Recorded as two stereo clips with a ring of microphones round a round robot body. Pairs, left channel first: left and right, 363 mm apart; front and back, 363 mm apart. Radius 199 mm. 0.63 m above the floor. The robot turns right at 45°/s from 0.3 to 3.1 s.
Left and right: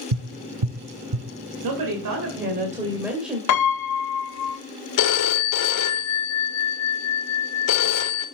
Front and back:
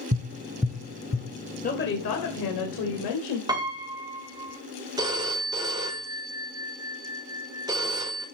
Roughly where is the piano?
Left.